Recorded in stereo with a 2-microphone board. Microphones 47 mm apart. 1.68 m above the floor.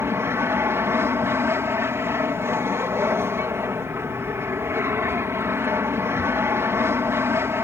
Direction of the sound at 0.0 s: 65° right (ahead or behind).